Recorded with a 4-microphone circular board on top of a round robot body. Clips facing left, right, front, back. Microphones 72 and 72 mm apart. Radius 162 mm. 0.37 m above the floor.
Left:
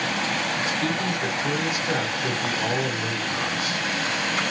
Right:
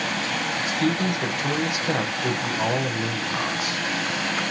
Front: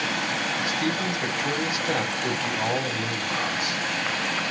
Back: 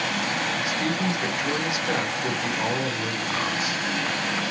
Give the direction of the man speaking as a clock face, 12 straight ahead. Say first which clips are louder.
Right 2 dB, back 1 dB; 3 o'clock.